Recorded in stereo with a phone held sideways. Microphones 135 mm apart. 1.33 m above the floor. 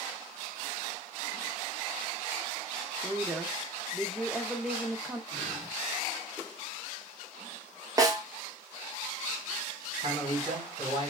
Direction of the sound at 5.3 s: 30° right (ahead or behind).